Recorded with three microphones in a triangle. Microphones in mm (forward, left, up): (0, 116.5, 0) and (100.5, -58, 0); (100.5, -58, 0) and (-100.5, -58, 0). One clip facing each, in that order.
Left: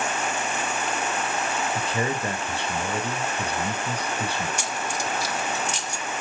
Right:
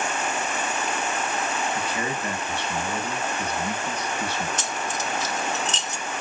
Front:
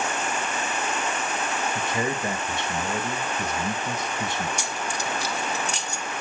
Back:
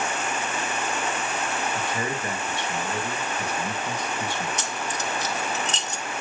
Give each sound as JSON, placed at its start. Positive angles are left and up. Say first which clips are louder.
{"t": 1.8, "sound": "a man speaking", "louder": "left 2 dB, front 2 dB", "azimuth_deg": 65, "distance_m": 2.5}
{"t": 4.6, "sound": "keys jangling", "louder": "even, even", "azimuth_deg": 60, "distance_m": 0.8}